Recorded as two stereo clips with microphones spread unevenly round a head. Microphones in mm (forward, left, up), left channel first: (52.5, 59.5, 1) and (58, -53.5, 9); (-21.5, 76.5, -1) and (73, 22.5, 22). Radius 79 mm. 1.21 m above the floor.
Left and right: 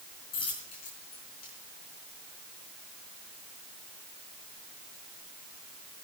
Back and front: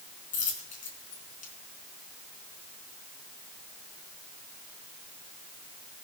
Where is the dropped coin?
150° left, 4.5 m.